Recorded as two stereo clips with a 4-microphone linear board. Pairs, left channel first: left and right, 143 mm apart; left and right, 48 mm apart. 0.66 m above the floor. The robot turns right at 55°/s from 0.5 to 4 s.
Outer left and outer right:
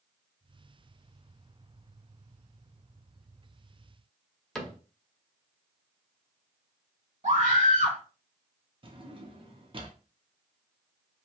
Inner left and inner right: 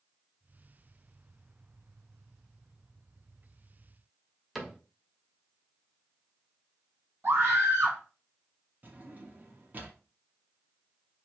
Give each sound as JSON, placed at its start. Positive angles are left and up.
{"t": 4.5, "sound": "a cupboard door", "side_deg": 5, "distance_m": 0.8}
{"t": 7.2, "sound": "a scream", "side_deg": -55, "distance_m": 1.8}
{"t": 8.8, "sound": "a drawer", "side_deg": -35, "distance_m": 0.7}